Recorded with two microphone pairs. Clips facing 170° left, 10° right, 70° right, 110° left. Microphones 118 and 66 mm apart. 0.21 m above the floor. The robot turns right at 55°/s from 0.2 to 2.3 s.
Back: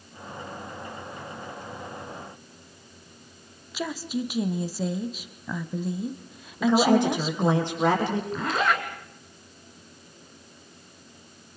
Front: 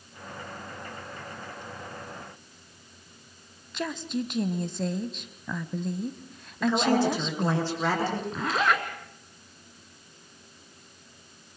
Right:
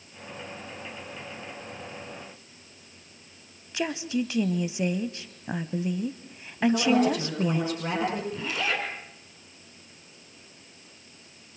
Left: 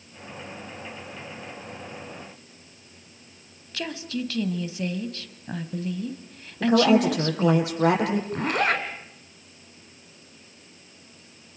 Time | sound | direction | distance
3.7 | a woman speaking | 115° right | 1.0 m
6.6 | a woman speaking | 100° left | 7.5 m
8.3 | a zipper | 85° left | 2.5 m